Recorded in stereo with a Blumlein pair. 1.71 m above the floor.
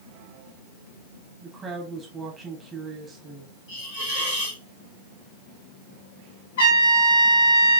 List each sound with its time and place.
1.4 s a woman speaking: 15° right, 1.5 m
3.7 s a hiss: 50° left, 3 m
6.6 s a trumpet: 60° left, 2.5 m